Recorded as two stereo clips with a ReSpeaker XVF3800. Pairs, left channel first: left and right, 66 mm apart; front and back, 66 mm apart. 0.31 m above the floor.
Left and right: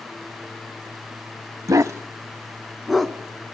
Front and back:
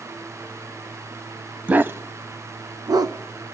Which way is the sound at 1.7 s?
115° right.